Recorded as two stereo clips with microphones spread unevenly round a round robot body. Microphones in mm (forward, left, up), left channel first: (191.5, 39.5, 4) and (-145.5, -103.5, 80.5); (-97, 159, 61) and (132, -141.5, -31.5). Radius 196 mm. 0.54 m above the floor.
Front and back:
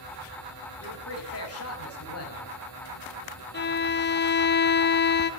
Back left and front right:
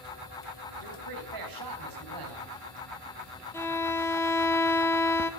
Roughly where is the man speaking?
Ahead right.